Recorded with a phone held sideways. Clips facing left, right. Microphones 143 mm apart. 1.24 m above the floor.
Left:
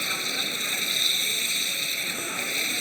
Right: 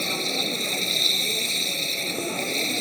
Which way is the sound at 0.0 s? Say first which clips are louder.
Right 7 dB; 35° right (ahead or behind).